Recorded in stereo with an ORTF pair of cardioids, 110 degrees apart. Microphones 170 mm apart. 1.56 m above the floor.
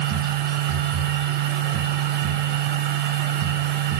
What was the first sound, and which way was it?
A machine running, 65° right.